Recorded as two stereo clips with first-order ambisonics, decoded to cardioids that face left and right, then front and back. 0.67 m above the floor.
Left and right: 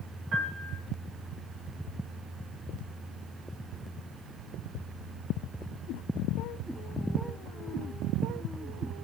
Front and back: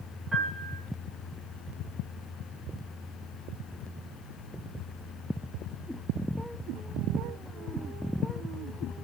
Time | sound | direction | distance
0.3 | a piano | 100° right | 1.3 m